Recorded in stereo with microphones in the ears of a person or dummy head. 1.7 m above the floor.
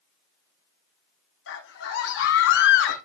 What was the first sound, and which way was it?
A scream, 75° left (ahead or behind).